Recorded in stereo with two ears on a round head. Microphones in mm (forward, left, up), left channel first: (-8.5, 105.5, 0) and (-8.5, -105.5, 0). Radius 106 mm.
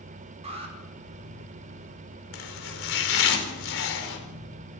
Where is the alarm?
30° right (ahead or behind), 5 m.